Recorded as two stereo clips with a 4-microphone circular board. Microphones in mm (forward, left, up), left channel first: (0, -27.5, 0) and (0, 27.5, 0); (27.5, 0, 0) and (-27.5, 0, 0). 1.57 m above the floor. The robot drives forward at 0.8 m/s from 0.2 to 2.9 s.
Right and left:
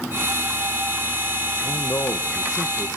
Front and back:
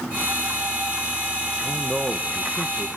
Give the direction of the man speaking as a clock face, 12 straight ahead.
3 o'clock.